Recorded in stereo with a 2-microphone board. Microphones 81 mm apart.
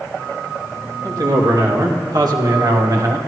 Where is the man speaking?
60° right (ahead or behind), 3 m; by 3.2 s 45° right (ahead or behind), 1.3 m.